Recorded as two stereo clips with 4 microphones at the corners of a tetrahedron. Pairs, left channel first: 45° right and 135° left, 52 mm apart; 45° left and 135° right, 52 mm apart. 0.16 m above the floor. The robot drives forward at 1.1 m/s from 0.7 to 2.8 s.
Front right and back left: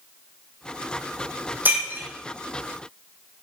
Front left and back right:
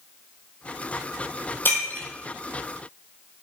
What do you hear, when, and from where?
1.6 s breaking glass: 90° left, 3 m; by 2.1 s 95° left, 3 m